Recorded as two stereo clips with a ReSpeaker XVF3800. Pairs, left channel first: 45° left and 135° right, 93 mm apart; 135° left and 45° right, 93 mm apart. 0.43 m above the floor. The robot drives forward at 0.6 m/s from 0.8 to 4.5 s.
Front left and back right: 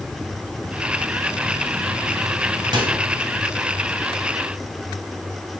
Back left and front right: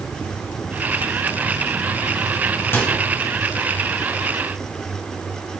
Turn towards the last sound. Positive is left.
turn(degrees=-165)